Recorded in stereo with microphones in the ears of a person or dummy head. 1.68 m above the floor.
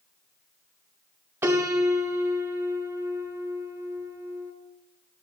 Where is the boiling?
I don't hear boiling.